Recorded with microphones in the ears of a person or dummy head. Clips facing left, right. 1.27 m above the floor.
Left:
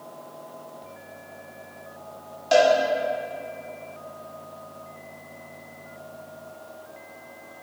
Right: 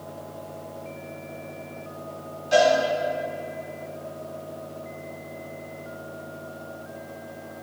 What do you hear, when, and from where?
2.5 s a cowbell: 75° left (ahead or behind), 2.5 m